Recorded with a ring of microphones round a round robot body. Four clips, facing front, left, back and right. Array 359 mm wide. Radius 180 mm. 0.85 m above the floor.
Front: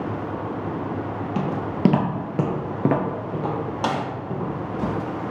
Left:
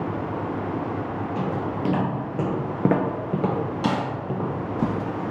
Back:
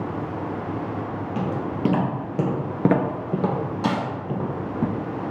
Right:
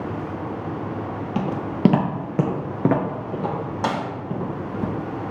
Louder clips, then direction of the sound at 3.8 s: Right 1 dB, even; 45° right.